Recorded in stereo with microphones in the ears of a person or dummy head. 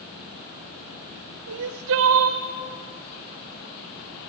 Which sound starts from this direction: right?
Crying, at 1.5 s.